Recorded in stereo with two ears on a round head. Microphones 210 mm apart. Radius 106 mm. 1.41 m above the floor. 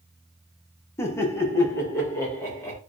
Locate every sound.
1.0 s laughter: 10° left (ahead or behind), 0.5 m